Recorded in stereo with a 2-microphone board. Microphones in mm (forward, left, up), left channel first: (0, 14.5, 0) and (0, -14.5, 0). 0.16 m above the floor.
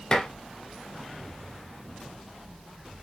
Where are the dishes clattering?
20° left (ahead or behind), 0.9 m.